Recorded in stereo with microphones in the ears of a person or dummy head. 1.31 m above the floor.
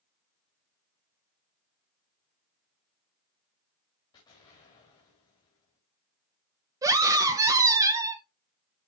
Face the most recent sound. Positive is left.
turn(degrees=-20)  # may be behind; listen again after turning